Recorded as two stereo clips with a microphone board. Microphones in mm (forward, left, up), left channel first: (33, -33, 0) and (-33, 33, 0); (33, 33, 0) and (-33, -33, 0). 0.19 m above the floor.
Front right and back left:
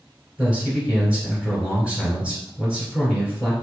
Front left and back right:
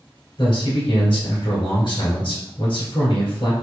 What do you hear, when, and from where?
0.4 s a man speaking: 60° left, 1.8 m